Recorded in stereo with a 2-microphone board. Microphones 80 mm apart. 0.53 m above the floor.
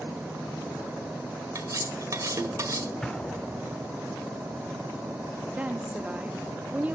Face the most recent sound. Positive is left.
turn(degrees=-15)  # may be behind; listen again after turning